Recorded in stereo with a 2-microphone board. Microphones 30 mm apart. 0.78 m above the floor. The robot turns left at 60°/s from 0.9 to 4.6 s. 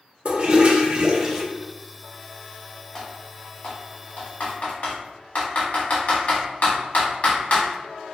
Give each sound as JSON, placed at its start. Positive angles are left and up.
{"t": 0.2, "sound": "a toilet flushing", "azimuth_deg": -140, "distance_m": 0.6}
{"t": 3.0, "sound": "typing on a keyboard", "side_deg": 15, "distance_m": 1.4}